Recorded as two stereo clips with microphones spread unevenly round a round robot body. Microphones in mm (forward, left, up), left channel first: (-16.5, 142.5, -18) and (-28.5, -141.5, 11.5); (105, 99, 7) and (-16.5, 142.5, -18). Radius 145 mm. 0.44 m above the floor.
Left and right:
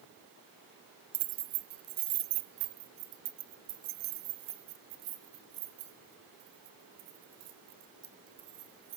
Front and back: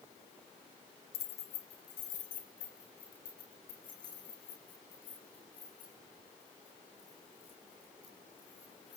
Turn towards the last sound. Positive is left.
turn(degrees=-75)